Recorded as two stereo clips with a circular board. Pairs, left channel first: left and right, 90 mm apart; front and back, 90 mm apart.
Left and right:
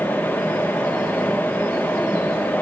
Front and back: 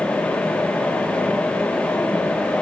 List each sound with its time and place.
Only background noise.